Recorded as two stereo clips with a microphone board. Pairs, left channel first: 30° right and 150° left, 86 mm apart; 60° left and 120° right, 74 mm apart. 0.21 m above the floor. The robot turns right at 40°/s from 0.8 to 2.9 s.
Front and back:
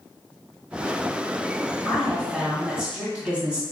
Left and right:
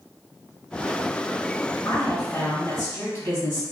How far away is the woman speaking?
About 1.4 m.